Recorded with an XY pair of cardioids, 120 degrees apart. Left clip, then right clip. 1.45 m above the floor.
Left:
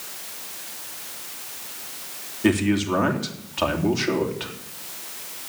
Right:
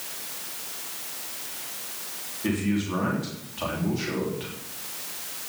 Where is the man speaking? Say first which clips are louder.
Left 7 dB; 50° left, 3.5 m.